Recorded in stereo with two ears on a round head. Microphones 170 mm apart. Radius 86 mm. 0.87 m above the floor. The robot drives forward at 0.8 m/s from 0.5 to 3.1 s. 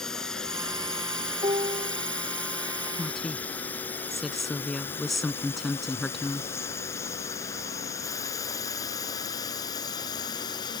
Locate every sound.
0.0 s a drone: 5° left (ahead or behind); by 10.8 s 25° left (ahead or behind)
1.4 s a piano: 25° right (ahead or behind)
3.0 s a woman speaking: centre (ahead or behind)